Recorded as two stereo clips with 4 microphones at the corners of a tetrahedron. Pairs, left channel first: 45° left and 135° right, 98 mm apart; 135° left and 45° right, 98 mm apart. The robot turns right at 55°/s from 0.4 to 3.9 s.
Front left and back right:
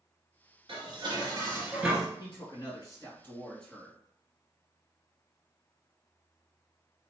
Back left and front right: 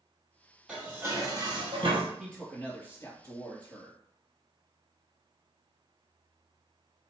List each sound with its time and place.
0.7 s dishes clattering: 125° right, 1.5 m; by 2.1 s 50° right, 1.5 m
2.2 s a man speaking: 45° left, 2.5 m; by 4.0 s 135° left, 2.5 m